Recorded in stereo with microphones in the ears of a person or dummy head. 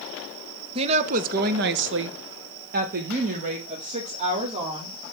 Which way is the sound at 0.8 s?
30° right (ahead or behind).